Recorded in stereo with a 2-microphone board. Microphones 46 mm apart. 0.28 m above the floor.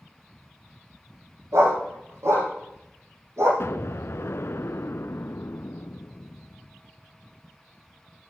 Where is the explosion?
70° left (ahead or behind), 0.5 m.